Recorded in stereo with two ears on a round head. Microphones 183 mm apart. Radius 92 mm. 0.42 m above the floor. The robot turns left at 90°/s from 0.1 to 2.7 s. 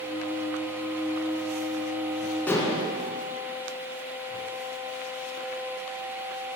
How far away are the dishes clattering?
About 3 m.